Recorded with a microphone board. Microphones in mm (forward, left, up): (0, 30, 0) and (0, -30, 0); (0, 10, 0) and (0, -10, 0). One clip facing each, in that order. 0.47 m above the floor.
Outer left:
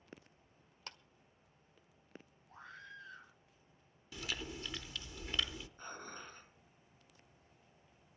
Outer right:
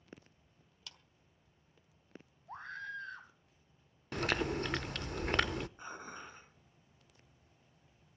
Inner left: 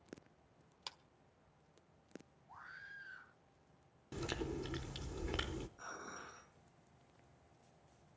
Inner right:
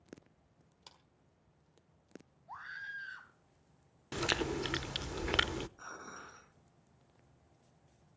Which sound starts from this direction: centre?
Dishes clattering, at 5.8 s.